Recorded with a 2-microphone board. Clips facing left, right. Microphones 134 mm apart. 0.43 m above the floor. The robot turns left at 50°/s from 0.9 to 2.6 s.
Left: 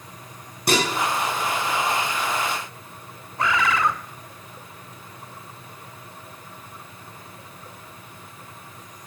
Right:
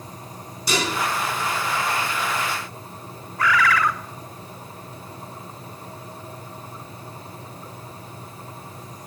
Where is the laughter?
I don't hear laughter.